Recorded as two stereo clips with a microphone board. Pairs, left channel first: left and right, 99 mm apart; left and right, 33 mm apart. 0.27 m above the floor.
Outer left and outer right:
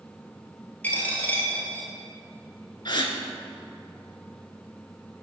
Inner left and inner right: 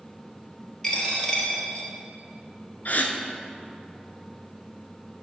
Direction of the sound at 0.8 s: 15° left (ahead or behind).